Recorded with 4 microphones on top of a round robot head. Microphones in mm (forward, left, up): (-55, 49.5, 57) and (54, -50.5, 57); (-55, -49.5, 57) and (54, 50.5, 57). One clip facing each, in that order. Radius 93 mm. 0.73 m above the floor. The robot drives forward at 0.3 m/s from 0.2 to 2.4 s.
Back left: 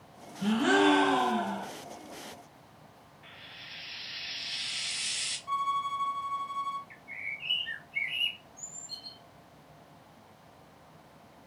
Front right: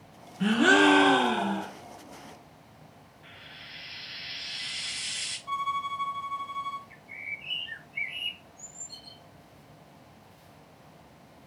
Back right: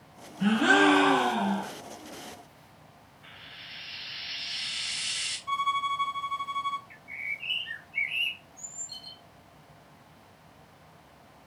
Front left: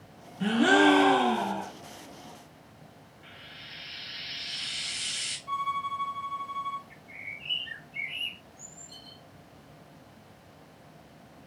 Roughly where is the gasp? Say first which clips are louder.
Front right 3 dB, front left 1 dB; ahead.